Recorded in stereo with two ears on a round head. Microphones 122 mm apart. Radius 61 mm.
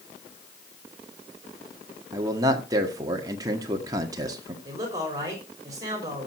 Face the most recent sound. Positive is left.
turn(degrees=-25)  # may be behind; listen again after turning